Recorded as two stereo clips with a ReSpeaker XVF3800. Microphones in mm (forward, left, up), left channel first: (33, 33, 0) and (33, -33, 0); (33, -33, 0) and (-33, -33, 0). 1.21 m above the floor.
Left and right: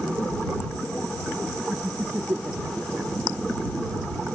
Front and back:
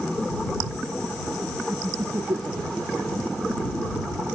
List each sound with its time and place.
1.7 s laughter: 150° right; by 3.1 s 155° right